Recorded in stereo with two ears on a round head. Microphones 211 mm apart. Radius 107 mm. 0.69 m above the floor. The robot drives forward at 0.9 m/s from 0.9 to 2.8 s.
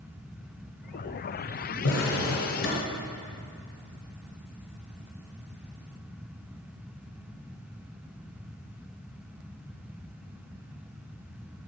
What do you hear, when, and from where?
1.8 s a drawer: 60° left (ahead or behind), 2 m; by 2.9 s 45° left (ahead or behind), 2.5 m